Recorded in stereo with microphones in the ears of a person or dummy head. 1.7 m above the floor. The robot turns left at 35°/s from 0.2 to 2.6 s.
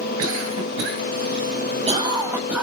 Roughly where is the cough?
Right.